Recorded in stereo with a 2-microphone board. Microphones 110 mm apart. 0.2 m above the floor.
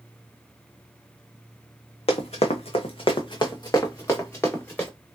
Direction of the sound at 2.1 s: 75° left (ahead or behind).